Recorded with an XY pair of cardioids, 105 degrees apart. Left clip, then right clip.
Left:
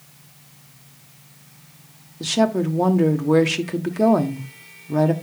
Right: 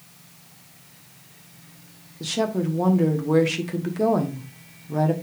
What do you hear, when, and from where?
2.2 s a woman speaking: 25° left, 1.2 m